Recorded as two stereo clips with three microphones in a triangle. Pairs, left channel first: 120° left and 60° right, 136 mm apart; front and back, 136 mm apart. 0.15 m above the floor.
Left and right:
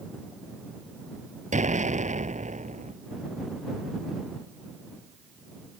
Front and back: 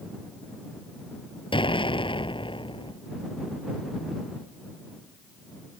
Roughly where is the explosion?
Ahead right.